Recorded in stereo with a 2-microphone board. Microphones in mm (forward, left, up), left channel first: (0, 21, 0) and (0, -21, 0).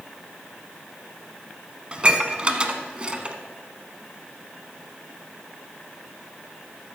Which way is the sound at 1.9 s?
25° right (ahead or behind).